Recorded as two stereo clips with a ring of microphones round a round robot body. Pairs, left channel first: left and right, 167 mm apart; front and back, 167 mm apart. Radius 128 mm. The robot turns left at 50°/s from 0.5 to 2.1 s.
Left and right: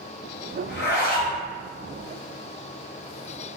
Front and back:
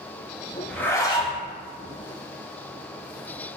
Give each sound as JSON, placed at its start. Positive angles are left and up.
{"t": 0.7, "sound": "a zipper", "azimuth_deg": 85, "distance_m": 1.6}